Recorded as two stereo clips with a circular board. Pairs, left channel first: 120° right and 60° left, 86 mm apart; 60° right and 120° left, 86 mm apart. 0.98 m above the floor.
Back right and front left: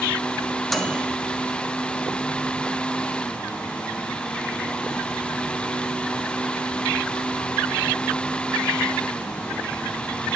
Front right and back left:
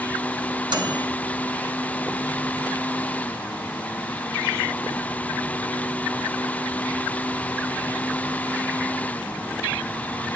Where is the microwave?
155° left, 1.2 m.